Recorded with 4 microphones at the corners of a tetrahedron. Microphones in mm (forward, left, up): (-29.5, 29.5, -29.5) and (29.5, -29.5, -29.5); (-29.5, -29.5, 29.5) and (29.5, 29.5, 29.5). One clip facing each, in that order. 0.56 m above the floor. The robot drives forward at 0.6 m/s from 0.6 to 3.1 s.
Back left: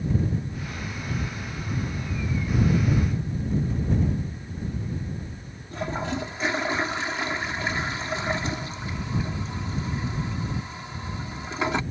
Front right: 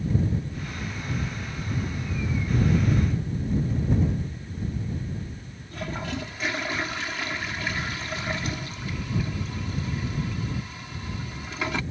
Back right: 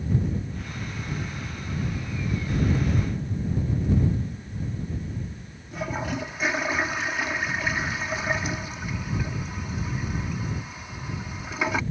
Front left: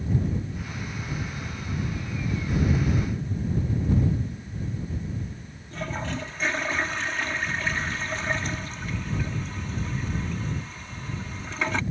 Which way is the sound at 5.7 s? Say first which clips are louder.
Back left 3 dB, back right 2 dB; 155° left.